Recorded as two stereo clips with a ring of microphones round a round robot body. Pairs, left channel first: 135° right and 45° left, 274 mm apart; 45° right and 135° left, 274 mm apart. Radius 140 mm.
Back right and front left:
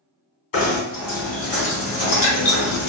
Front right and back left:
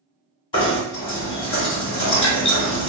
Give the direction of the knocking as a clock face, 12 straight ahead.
4 o'clock.